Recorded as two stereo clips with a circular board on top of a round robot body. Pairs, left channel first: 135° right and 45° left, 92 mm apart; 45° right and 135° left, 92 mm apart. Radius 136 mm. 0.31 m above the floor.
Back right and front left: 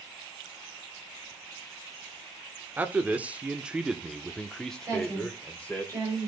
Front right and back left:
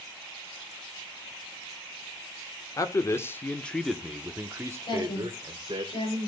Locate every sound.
2.8 s a man speaking: 20° right, 1.4 m; by 5.8 s 150° left, 1.8 m
4.8 s a woman speaking: 15° right, 8.5 m